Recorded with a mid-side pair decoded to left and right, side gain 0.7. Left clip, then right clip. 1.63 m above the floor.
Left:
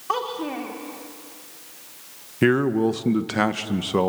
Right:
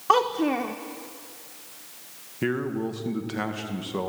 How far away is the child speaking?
About 1.3 m.